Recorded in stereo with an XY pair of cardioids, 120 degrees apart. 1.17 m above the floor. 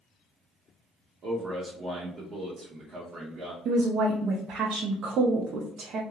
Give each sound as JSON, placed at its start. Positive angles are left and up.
{"t": 1.2, "sound": "a man speaking", "azimuth_deg": -50, "distance_m": 0.8}
{"t": 3.6, "sound": "a woman speaking", "azimuth_deg": -60, "distance_m": 0.6}